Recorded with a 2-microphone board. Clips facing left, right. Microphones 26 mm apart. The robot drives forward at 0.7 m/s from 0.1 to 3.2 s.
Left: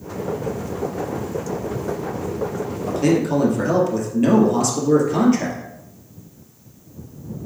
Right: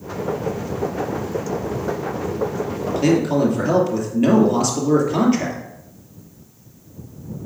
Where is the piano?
No piano in this recording.